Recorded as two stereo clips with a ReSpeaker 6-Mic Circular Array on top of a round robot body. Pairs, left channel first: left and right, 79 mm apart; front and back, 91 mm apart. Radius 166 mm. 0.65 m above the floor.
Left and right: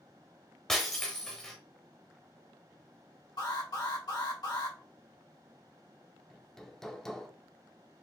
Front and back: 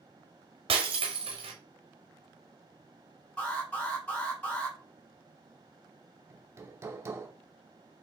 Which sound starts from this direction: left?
An alarm, at 3.4 s.